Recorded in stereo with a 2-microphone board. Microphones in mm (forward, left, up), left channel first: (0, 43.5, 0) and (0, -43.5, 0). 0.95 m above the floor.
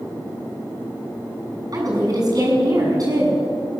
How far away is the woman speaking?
About 7.5 m.